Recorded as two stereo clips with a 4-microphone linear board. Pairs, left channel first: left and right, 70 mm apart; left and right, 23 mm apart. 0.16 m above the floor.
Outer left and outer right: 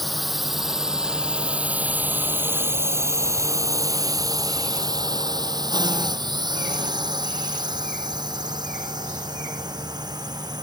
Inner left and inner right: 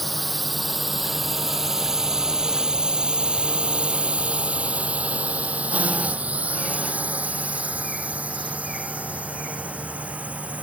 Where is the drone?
Centre (ahead or behind); by 10.6 s 70° right (ahead or behind).